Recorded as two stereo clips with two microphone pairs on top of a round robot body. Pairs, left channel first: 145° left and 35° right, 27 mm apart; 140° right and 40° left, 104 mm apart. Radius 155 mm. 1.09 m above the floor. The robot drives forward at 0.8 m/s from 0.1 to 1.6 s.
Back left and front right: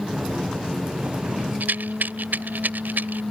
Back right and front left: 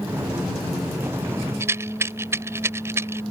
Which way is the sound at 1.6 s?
30° right.